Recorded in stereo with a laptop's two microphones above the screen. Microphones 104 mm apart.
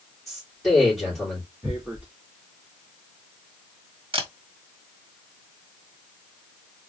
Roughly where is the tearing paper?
Centre.